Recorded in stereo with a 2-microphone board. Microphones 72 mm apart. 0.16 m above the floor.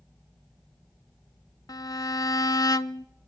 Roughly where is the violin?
Left.